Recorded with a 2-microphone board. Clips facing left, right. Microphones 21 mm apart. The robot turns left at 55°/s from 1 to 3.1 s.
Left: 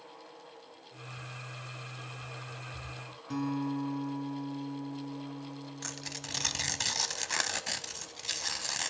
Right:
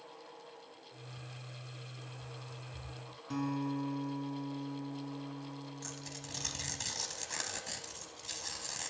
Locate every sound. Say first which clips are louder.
3.3 s a guitar: left 3 dB; 5° left (ahead or behind), 2.5 m
5.8 s tearing paper: left 5 dB; 40° left (ahead or behind), 0.7 m